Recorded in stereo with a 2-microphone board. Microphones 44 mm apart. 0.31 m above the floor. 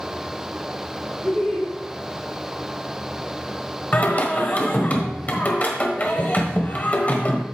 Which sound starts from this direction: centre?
Laughter, at 1.2 s.